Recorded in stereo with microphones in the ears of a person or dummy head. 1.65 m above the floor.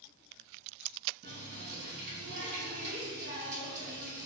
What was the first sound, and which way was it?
A running tap, 40° right (ahead or behind).